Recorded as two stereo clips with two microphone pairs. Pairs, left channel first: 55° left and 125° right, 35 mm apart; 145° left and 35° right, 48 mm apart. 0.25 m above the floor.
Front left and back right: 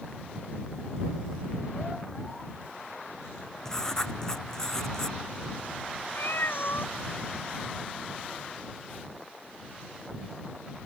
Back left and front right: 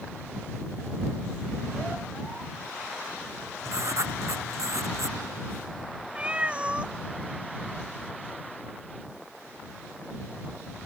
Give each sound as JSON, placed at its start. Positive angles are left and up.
{"t": 3.6, "sound": "writing", "azimuth_deg": -25}
{"t": 6.2, "sound": "a cat meowing", "azimuth_deg": 35}